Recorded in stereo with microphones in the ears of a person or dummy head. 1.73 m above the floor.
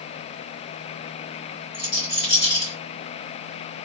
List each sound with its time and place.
1.7 s a rattle: 35° left (ahead or behind), 1.3 m